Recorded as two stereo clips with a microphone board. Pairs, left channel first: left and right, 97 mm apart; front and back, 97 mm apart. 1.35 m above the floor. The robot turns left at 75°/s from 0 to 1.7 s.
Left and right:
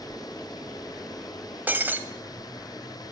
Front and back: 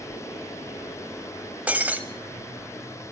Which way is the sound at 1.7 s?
125° right.